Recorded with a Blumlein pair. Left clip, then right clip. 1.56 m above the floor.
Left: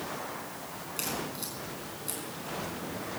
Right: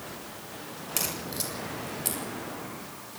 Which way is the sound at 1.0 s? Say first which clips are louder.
Right 3 dB; 45° right.